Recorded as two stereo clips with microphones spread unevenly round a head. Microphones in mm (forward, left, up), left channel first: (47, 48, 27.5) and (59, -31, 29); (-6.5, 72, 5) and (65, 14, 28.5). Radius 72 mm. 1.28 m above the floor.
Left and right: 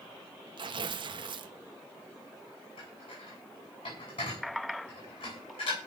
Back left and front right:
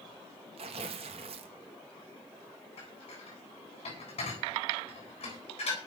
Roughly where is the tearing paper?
Right.